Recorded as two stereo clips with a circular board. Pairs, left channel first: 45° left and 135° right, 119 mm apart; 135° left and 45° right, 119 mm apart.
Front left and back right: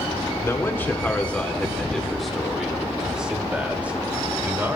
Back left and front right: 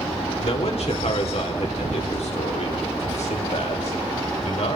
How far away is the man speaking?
About 2 m.